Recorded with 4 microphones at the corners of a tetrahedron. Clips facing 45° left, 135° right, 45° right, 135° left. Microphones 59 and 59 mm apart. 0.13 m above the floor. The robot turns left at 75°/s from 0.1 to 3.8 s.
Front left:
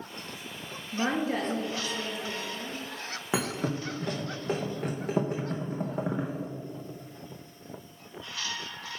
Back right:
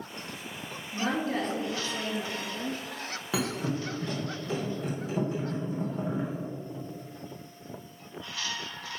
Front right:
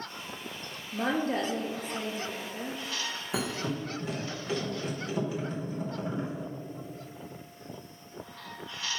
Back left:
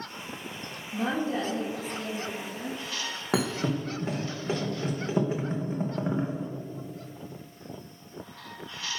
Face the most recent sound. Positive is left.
turn(degrees=80)